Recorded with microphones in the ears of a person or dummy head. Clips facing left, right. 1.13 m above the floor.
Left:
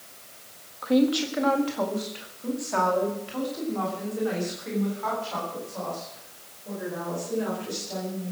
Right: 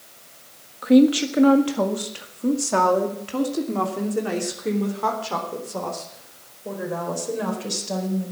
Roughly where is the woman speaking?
Right.